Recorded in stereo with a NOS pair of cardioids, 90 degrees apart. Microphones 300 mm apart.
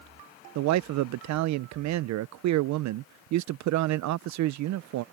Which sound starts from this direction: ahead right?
A man speaking, at 0.6 s.